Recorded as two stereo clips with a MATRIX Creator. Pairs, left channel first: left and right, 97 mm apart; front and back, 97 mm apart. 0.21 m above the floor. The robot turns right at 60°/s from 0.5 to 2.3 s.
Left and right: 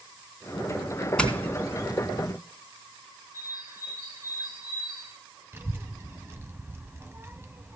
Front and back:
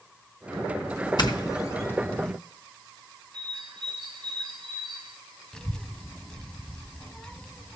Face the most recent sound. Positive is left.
turn(degrees=-75)